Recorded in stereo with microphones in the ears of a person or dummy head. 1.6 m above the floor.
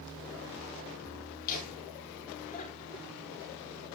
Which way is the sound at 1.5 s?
45° left (ahead or behind).